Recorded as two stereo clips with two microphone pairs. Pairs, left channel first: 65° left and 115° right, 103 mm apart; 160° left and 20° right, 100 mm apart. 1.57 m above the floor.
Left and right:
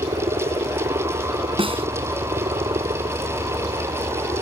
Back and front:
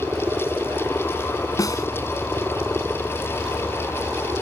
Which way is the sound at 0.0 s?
95° right.